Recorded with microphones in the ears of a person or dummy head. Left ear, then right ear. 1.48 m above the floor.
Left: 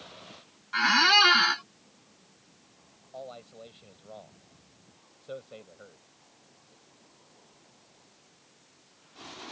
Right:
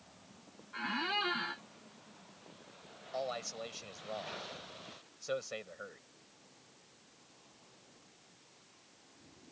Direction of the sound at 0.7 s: 55° left (ahead or behind).